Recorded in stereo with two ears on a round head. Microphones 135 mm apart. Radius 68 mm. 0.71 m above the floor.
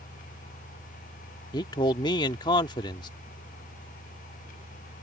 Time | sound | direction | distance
1.5 | a man speaking | 30° left (ahead or behind) | ?